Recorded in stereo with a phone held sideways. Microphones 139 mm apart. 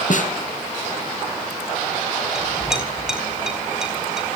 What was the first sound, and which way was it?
A snare drum, 60° left (ahead or behind).